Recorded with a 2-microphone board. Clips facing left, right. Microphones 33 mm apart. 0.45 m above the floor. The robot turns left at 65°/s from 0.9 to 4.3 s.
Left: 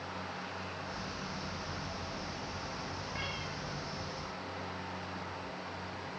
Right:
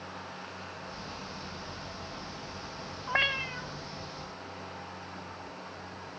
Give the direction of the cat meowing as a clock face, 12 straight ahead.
3 o'clock.